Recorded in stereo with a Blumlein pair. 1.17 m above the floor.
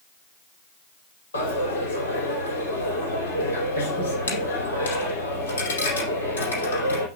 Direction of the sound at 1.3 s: 70° left.